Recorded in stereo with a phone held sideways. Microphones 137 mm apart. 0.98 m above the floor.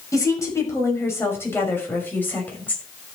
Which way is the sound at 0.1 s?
20° left (ahead or behind).